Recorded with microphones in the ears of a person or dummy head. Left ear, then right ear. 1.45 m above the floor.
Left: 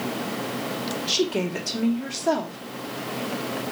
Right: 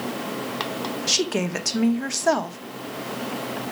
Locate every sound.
1.1 s a woman speaking: 50° right (ahead or behind), 1.4 m